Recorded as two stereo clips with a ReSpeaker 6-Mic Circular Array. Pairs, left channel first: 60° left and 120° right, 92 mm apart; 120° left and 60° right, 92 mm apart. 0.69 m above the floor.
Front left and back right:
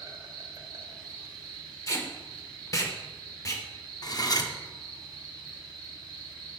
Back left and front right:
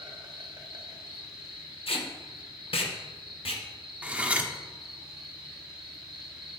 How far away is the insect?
About 1.5 m.